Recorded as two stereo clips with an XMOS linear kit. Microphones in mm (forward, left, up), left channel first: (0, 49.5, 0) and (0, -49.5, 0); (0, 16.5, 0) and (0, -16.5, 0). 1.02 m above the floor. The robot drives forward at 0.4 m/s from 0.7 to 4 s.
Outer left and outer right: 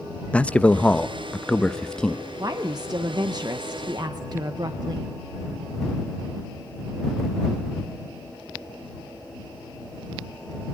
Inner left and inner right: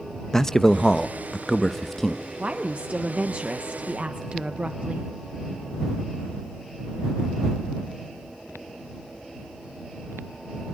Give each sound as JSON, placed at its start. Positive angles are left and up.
{"t": 0.3, "sound": "a man speaking", "side_deg": 15, "distance_m": 0.8}
{"t": 2.4, "sound": "a woman speaking", "side_deg": -40, "distance_m": 1.1}